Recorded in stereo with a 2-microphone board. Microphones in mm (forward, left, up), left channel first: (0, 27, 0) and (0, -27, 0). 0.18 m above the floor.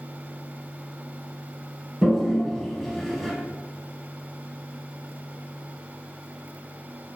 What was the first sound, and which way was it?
A toilet flushing, 10° left (ahead or behind).